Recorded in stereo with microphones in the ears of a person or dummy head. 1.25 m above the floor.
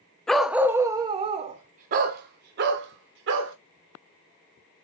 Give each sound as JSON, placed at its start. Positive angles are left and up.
{"t": 0.3, "sound": "a dog barking", "side_deg": 5, "distance_m": 0.8}